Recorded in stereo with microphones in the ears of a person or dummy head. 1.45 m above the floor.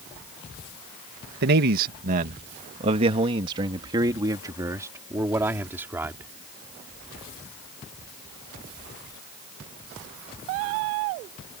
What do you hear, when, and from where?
1.4 s a man speaking: 55° right (ahead or behind); by 6.3 s 10° right (ahead or behind)